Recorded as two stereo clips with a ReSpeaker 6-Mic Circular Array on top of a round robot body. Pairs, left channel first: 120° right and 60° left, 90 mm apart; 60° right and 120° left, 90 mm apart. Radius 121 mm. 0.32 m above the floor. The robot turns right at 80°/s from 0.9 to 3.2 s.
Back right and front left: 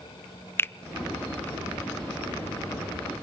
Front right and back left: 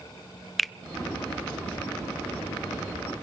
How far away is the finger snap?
About 0.7 m.